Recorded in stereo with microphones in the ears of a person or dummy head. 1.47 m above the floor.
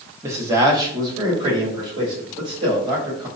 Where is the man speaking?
15° right (ahead or behind), 0.7 m; by 3.3 s 30° right (ahead or behind), 2.5 m.